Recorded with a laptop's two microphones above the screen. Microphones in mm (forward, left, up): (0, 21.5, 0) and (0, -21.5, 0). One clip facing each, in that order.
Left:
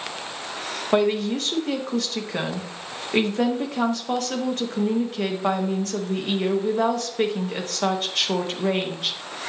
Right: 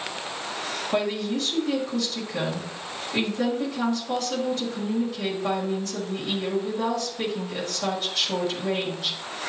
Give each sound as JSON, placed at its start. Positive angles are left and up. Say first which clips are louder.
{"t": 0.9, "sound": "a woman speaking", "louder": "left 6 dB", "side_deg": 55, "distance_m": 1.4}